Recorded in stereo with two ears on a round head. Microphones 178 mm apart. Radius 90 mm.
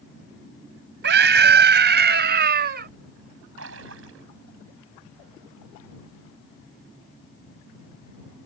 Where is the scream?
60° right (ahead or behind); by 2.9 s 55° right (ahead or behind).